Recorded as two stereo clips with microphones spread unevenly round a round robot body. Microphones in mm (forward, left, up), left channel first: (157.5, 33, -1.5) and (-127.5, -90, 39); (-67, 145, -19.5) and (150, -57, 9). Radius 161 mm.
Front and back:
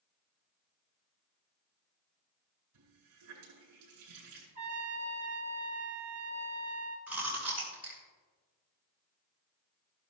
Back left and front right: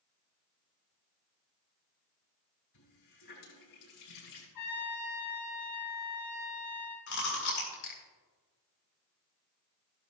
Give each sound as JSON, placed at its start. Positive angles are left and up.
{"t": 2.7, "sound": "a running tap", "azimuth_deg": 170, "distance_m": 6.0}
{"t": 4.5, "sound": "a trumpet", "azimuth_deg": 130, "distance_m": 5.0}
{"t": 7.1, "sound": "chewing", "azimuth_deg": 115, "distance_m": 4.5}